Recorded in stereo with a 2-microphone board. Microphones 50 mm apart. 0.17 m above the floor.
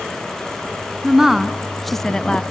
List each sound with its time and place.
1.0 s a woman speaking: 10° right (ahead or behind), 1.8 m; by 2.4 s 20° left (ahead or behind), 1.1 m